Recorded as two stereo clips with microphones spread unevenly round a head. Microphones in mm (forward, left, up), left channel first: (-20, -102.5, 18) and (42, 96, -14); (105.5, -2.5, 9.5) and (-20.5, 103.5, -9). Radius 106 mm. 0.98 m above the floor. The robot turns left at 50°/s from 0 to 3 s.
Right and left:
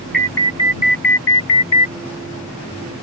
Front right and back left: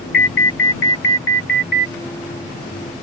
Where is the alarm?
15° right; by 1.9 s 105° right.